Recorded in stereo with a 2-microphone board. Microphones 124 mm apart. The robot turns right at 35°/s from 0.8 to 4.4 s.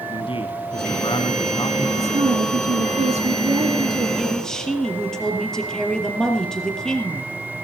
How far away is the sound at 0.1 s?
About 2 m.